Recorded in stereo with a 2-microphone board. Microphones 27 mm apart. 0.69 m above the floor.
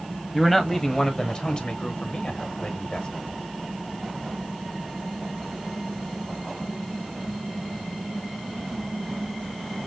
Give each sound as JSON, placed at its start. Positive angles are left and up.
{"t": 0.3, "sound": "a man speaking", "side_deg": 0, "distance_m": 0.8}